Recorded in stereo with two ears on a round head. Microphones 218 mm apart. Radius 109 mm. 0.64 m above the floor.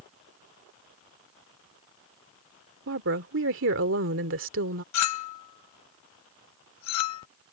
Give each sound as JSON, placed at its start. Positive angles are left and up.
{"t": 2.9, "sound": "a woman speaking", "side_deg": -55}
{"t": 4.9, "sound": "a clink", "side_deg": 80}